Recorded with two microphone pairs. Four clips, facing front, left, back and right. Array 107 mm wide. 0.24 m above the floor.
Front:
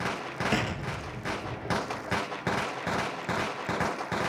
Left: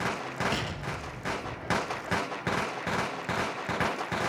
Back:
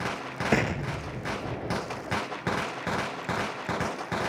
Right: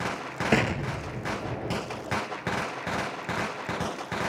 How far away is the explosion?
About 1.4 m.